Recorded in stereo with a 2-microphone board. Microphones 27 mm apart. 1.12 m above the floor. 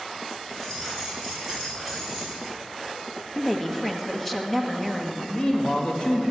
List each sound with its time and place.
0.5 s keys jangling: 5° left (ahead or behind), 5.5 m
3.4 s a woman speaking: 10° left (ahead or behind), 1.3 m
5.3 s a man speaking: 30° left (ahead or behind), 1.8 m